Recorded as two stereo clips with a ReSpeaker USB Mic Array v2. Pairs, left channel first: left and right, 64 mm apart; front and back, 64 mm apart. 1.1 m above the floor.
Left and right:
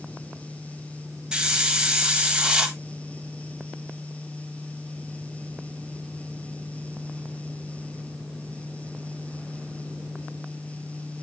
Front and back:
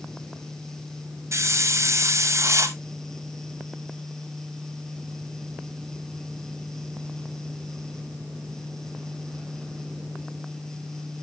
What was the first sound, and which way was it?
A hiss, 165° right.